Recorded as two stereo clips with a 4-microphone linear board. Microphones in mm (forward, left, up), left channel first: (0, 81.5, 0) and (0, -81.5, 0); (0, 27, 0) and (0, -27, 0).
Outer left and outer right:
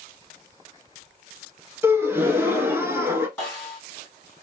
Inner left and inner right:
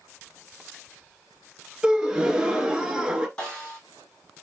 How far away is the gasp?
About 0.7 m.